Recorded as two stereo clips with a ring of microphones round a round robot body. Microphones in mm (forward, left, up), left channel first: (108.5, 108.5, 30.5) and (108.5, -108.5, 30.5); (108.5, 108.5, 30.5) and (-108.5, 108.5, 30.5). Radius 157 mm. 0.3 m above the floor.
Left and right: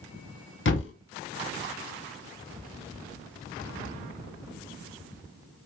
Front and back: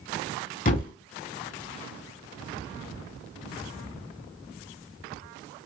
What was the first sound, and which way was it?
A thud, 55° left.